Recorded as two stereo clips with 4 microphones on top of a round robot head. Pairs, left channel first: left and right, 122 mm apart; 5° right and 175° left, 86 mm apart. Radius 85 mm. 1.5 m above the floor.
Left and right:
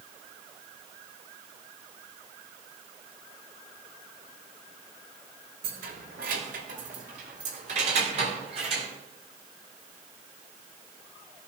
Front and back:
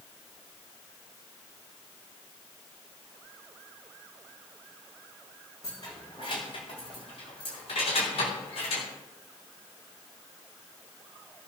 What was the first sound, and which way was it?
Keys jangling, 70° right.